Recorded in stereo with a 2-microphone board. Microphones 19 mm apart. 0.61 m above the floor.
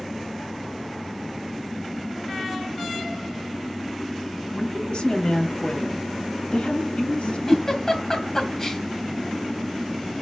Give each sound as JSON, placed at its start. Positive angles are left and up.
{"t": 4.5, "sound": "a woman speaking", "side_deg": 50, "distance_m": 4.5}
{"t": 7.5, "sound": "a giggle", "side_deg": 30, "distance_m": 3.0}